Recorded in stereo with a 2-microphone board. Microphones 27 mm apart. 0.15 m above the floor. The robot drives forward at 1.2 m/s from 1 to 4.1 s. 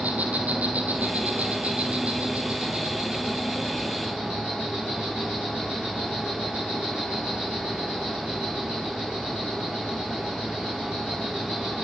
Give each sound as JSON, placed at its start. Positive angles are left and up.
{"t": 0.0, "sound": "an insect", "side_deg": -75, "distance_m": 2.5}